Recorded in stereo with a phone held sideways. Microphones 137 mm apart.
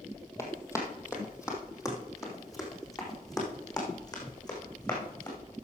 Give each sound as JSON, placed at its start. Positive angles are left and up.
{"t": 0.4, "sound": "running footsteps", "side_deg": 20, "distance_m": 2.5}